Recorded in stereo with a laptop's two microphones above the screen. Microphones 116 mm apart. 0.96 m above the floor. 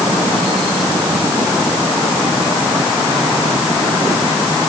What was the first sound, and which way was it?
Only background noise.